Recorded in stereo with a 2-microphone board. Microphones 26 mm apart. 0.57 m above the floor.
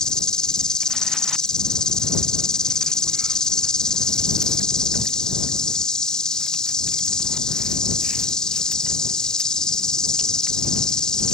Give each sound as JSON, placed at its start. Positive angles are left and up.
{"t": 0.0, "sound": "an insect", "side_deg": 30}